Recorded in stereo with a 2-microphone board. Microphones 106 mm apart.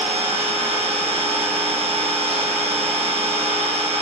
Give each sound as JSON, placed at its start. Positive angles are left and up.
{"t": 0.0, "sound": "an engine running", "side_deg": -70, "distance_m": 0.8}